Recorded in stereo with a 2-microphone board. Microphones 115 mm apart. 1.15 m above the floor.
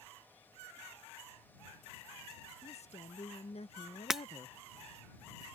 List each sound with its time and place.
2.6 s a woman speaking: 70° left (ahead or behind); by 4.6 s 50° left (ahead or behind)
4.1 s breaking glass: 5° right (ahead or behind)